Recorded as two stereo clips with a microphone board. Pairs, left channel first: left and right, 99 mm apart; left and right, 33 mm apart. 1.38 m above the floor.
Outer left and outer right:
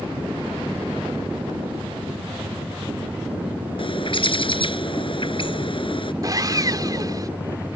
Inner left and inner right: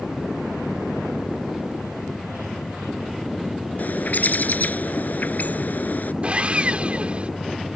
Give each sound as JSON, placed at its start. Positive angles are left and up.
{"t": 3.8, "sound": "a bird", "side_deg": 60}
{"t": 6.2, "sound": "sawing", "side_deg": -40}